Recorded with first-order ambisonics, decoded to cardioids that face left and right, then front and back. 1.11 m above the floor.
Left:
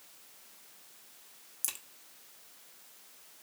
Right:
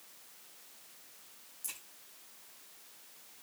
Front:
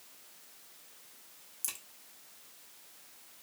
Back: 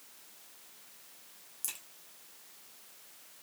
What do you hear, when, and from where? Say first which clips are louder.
1.6 s a crack: left 5 dB, front 1 dB; 85° left, 0.6 m